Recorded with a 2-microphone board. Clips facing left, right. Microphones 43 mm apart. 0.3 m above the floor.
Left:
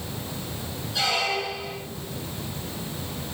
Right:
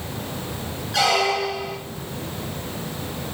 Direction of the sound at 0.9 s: 65° right (ahead or behind).